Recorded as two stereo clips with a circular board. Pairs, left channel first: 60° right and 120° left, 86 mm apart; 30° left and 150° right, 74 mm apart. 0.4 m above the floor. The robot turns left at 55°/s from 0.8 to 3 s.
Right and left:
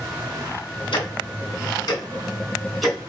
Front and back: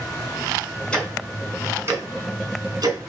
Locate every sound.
0.9 s ticking: 45° right, 3.5 m; by 3.0 s 160° right, 3.5 m